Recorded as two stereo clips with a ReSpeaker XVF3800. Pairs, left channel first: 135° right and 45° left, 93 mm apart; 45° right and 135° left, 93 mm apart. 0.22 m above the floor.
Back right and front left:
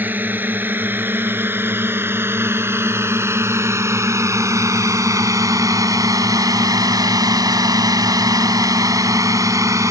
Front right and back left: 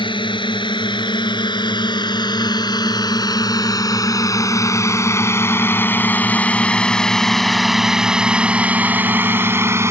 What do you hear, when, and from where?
0.0 s a drone: 25° right; by 9.9 s 85° left